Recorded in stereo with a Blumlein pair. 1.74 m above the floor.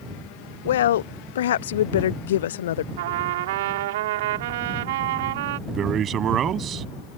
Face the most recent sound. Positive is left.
turn(degrees=-30)